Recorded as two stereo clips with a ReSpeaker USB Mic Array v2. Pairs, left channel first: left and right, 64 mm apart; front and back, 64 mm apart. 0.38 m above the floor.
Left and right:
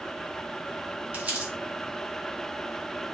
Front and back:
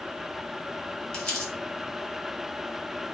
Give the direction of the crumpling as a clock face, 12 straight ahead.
2 o'clock.